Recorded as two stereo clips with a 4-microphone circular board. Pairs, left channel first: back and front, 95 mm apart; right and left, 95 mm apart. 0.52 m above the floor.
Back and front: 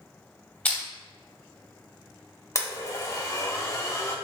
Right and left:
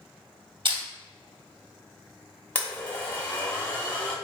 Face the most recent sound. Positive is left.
turn(degrees=-150)